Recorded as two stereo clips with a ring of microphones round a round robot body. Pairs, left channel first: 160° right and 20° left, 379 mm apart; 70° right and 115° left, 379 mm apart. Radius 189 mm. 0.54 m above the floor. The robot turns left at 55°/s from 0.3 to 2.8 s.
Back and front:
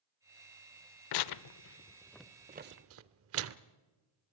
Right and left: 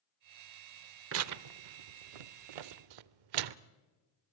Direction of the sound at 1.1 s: 170° left.